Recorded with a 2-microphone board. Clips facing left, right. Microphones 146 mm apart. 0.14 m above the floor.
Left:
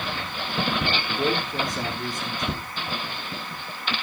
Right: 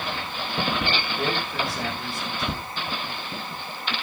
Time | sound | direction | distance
1.1 | a man speaking | 15° left (ahead or behind) | 5 m